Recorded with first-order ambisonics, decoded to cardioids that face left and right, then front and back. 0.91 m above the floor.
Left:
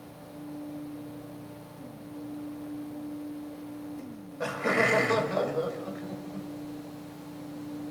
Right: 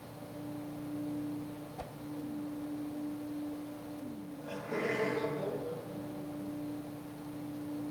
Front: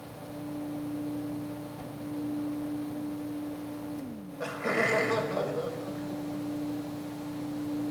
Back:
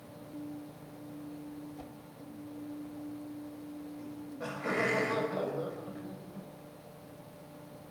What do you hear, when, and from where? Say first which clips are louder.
1.8 s a whoosh: right 3 dB, front 6 dB; 75° right, 1.2 m
4.0 s laughter: left 8 dB, front 4 dB; 70° left, 5.5 m